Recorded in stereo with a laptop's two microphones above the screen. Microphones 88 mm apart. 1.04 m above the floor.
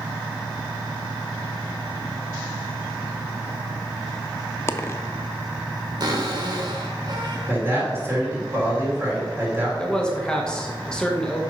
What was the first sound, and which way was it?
A dropped coin, 30° left (ahead or behind).